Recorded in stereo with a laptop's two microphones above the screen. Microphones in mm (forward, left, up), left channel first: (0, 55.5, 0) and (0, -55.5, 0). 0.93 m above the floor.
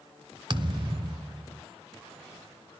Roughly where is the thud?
Right.